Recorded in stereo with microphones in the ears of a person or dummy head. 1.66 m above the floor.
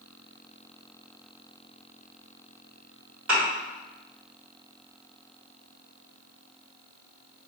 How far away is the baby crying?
I don't hear a baby crying.